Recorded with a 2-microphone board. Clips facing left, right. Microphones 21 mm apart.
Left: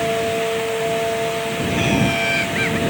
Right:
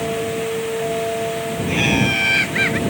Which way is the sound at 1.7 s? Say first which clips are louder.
Right 2 dB; 20° right (ahead or behind).